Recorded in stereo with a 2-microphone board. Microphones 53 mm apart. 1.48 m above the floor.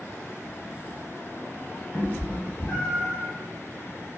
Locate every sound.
1.9 s a cat meowing: 40° left (ahead or behind), 1.6 m; by 3.2 s 5° right (ahead or behind), 1.5 m